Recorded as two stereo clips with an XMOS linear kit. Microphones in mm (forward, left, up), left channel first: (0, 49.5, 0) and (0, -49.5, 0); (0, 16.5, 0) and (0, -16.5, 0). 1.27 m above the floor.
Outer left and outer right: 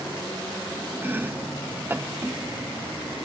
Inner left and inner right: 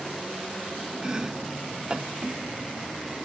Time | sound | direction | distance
1.0 | chopping | 20° right (ahead or behind) | 0.6 m